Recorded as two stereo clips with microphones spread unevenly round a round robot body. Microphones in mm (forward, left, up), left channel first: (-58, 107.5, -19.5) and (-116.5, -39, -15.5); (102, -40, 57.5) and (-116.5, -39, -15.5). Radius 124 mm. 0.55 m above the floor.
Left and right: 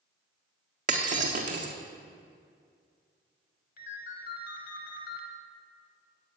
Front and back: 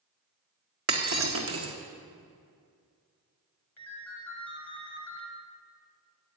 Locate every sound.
0.9 s breaking glass: 145° right, 1.5 m
3.8 s a ringtone: 85° left, 1.6 m